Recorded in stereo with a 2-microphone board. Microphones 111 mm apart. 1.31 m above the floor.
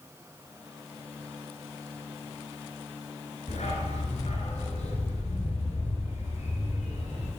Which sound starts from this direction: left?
A dog barking, at 3.5 s.